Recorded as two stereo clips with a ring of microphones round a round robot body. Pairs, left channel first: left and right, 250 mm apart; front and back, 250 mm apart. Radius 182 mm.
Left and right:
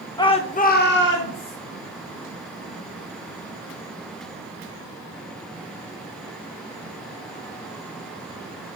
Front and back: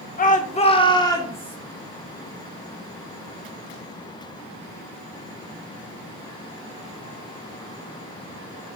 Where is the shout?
25° left, 0.9 m; by 1.6 s 80° left, 1.4 m.